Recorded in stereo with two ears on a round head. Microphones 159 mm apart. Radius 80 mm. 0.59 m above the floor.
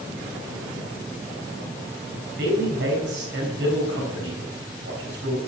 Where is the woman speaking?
65° right (ahead or behind), 5 m.